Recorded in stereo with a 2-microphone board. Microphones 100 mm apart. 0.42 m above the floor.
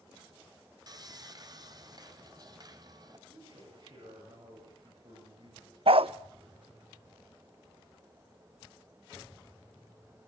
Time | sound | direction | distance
0.9 | sawing | 40° right (ahead or behind) | 2.5 m
3.3 | a man speaking | 50° right (ahead or behind) | 8 m
5.9 | a dog barking | 65° right (ahead or behind) | 0.5 m